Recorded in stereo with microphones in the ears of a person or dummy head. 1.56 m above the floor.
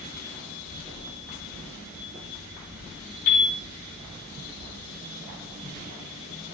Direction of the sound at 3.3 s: 50° left (ahead or behind).